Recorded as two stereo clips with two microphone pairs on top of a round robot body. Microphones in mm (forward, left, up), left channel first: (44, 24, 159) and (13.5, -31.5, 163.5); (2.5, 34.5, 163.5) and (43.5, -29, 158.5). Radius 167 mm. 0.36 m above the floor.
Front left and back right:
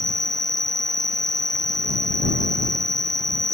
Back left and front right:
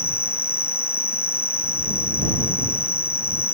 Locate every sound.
0.0 s an insect: 65° left